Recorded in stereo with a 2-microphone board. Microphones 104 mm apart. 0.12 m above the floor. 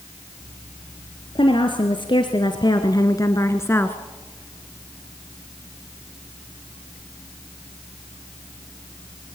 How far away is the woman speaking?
About 2 m.